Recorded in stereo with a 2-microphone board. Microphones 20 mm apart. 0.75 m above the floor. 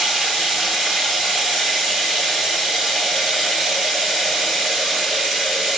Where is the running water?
55° left (ahead or behind), 5 m.